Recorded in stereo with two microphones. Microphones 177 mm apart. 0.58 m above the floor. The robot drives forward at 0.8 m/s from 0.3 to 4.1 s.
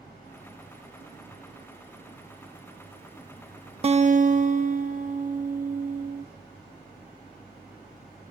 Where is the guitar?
35° right (ahead or behind), 0.7 m; by 6.2 s 45° right (ahead or behind), 0.5 m.